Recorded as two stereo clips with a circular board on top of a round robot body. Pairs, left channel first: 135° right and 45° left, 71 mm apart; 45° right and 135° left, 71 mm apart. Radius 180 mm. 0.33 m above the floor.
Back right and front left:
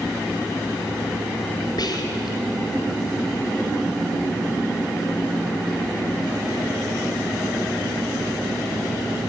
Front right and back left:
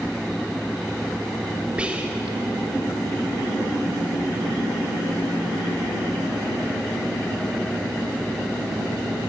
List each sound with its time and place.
1.8 s whispering: 150° right, 2.0 m